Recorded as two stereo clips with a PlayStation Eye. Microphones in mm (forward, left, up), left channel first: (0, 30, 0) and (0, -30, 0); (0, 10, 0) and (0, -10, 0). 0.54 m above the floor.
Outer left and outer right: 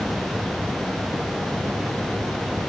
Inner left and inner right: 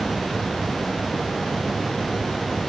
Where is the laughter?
No laughter in this recording.